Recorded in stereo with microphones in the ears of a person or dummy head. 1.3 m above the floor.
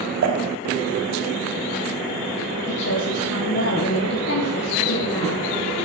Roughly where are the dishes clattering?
Right.